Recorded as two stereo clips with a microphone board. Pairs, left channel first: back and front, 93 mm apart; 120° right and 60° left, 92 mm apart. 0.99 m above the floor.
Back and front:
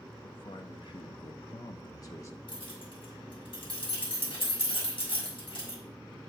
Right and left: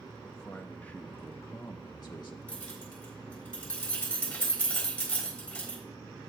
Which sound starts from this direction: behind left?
A man speaking, at 0.2 s.